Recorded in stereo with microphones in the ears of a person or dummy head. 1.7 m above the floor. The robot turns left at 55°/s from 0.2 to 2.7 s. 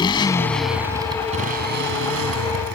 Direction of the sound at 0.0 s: 20° left.